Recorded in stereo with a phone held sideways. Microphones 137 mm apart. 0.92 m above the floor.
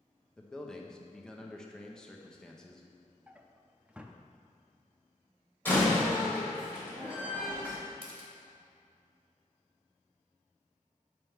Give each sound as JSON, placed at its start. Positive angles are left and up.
{"t": 0.4, "sound": "a man speaking", "side_deg": 5, "distance_m": 0.8}
{"t": 3.3, "sound": "a drawer", "side_deg": -10, "distance_m": 0.5}
{"t": 5.7, "sound": "a door slam", "side_deg": 15, "distance_m": 2.5}
{"t": 8.0, "sound": "a camera shutter", "side_deg": -45, "distance_m": 1.5}